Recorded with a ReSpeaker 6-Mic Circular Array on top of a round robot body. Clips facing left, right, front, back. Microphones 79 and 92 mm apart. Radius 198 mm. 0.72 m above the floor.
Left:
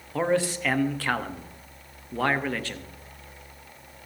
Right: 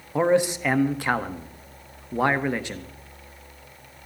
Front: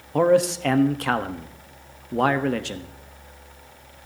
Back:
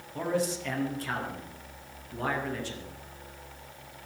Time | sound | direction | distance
0.1 | a man speaking | 20° right | 1.3 m